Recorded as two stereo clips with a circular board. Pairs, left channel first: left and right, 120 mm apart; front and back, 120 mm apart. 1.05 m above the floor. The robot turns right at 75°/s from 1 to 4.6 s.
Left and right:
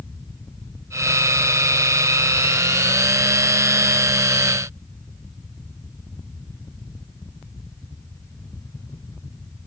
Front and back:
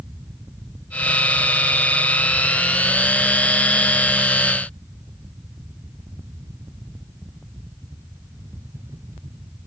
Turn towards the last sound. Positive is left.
No sound to turn to.